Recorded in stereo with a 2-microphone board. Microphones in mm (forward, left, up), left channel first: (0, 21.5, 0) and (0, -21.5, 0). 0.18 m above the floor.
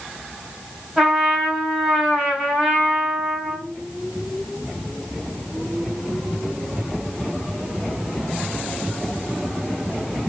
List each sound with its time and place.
1.0 s a trumpet: 5° right (ahead or behind), 5.5 m